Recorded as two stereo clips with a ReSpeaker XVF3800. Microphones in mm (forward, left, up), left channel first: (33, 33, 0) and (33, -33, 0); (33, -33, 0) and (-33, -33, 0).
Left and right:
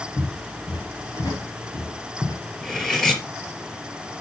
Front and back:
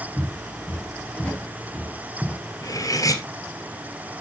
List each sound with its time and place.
0.2 s footsteps: 75° left, 4.5 m; by 2.4 s 70° left, 3 m
2.6 s cutlery clinking: 5° left, 1.9 m